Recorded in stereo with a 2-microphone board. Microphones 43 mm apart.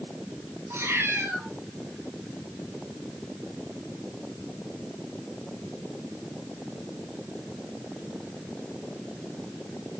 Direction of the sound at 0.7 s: 65° right (ahead or behind).